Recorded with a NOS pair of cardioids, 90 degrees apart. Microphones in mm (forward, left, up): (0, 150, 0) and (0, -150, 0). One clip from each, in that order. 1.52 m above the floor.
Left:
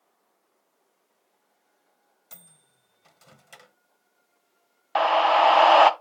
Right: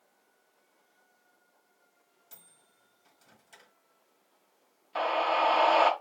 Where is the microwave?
50° left, 0.6 m.